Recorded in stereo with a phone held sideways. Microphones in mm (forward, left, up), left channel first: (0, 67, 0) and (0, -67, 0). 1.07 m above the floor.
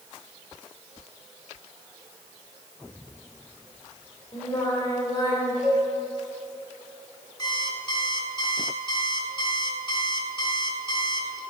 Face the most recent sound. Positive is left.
turn(degrees=35)  # may be behind; listen again after turning